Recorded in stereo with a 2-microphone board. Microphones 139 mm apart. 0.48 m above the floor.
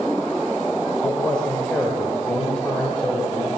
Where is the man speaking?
5° left (ahead or behind), 2 m.